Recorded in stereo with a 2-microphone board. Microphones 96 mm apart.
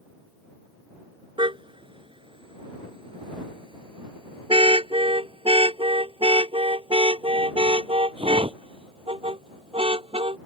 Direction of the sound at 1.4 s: 65° right (ahead or behind).